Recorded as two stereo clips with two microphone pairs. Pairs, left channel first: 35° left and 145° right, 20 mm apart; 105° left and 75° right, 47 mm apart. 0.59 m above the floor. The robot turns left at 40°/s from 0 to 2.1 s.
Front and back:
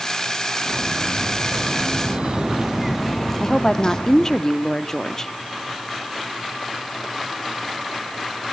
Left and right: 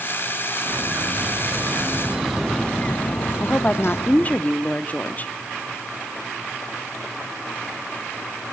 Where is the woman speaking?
80° left, 0.8 m.